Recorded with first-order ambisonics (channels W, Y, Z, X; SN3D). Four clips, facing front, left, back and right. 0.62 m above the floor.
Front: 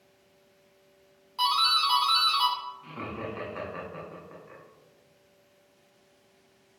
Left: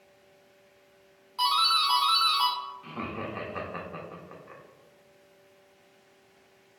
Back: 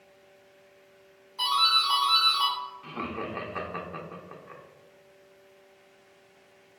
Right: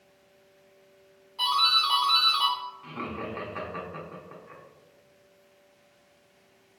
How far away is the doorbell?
About 1.6 m.